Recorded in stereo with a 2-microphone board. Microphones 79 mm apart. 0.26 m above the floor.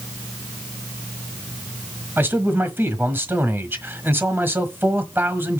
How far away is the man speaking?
About 1.3 m.